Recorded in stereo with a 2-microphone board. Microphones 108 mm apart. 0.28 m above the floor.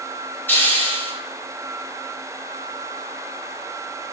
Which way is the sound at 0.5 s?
20° left (ahead or behind).